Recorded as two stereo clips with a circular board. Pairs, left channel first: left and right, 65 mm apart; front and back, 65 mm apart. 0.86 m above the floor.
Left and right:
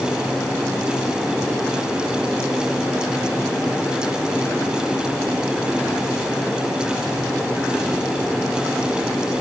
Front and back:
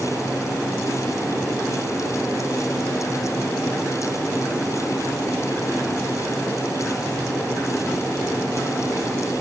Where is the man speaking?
No man speaking in this recording.